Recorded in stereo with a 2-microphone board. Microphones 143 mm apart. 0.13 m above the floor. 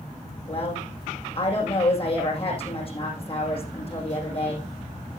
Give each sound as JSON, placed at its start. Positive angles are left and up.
{"t": 0.5, "sound": "a woman speaking", "side_deg": 40, "distance_m": 6.5}